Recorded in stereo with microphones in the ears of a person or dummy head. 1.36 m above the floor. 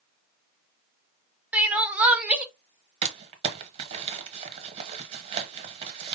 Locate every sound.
1.5 s crying: 10° right (ahead or behind), 0.7 m
3.0 s crumpling: 35° right (ahead or behind), 0.9 m